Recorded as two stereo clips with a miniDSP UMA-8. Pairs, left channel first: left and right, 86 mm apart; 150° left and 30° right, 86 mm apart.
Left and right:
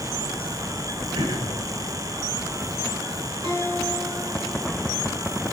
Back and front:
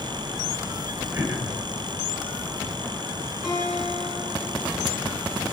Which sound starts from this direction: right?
Throat clearing, at 1.1 s.